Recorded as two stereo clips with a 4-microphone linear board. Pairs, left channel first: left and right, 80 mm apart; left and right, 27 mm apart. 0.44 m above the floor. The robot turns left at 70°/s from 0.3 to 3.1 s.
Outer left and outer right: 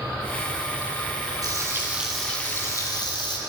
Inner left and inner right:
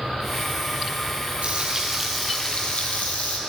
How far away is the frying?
About 2 m.